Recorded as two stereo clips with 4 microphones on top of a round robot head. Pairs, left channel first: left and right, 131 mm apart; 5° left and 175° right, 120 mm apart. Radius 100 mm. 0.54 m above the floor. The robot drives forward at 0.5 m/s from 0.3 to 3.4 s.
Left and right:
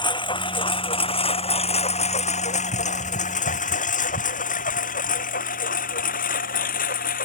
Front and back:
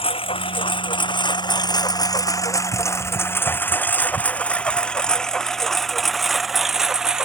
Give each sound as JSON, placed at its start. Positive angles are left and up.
{"t": 0.0, "sound": "a lawn mower", "azimuth_deg": 40}